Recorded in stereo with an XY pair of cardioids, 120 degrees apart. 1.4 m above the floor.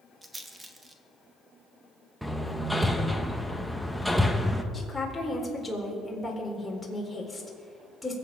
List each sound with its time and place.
0.2 s a rattle: 20° right, 1.4 m
2.2 s hammering: straight ahead, 1.1 m
4.7 s a woman speaking: 5° left, 4 m